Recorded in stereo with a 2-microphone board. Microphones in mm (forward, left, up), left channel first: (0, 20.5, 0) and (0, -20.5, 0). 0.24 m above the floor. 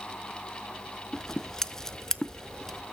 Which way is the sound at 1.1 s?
10° left (ahead or behind).